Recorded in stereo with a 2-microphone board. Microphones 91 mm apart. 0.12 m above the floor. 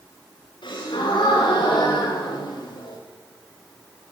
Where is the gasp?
70° left (ahead or behind), 9.5 m.